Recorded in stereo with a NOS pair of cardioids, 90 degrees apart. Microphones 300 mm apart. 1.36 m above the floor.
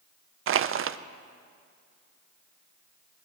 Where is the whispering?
No whispering in this recording.